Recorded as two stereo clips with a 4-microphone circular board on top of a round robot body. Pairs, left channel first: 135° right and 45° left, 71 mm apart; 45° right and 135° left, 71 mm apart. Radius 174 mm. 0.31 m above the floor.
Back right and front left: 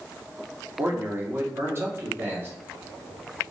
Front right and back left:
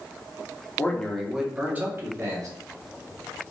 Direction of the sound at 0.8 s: Straight ahead.